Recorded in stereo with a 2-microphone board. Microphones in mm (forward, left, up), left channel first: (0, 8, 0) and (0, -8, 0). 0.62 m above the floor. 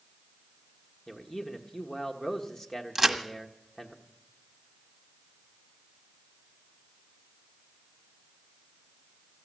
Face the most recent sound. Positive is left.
turn(degrees=-10)  # may be behind; listen again after turning